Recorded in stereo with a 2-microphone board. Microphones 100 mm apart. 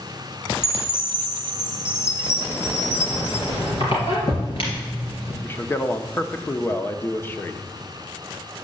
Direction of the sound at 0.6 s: 25° left (ahead or behind).